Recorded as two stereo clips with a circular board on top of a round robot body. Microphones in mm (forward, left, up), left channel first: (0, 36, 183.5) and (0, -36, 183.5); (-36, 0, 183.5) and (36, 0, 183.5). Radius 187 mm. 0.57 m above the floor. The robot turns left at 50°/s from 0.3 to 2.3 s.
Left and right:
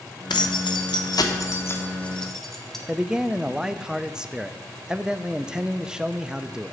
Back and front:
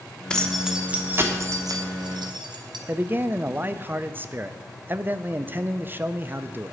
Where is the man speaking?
20° right, 0.6 m.